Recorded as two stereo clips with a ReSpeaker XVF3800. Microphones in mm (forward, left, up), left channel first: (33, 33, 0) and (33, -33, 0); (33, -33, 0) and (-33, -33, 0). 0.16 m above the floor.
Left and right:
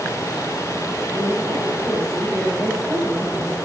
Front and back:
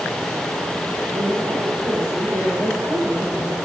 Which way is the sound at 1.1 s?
155° right.